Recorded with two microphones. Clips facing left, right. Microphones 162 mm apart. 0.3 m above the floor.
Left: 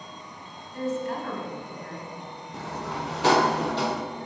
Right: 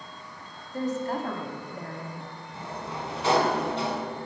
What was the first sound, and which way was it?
A woman speaking, 40° right (ahead or behind).